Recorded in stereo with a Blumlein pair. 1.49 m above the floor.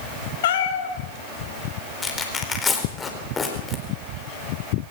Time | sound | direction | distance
0.4 | a cat meowing | 55° left | 2.5 m
2.0 | tearing paper | 15° left | 4 m